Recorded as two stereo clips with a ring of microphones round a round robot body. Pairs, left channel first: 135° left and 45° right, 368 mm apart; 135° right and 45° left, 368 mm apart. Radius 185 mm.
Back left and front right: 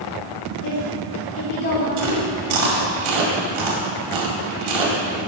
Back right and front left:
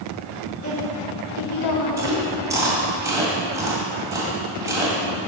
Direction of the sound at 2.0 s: 35° right.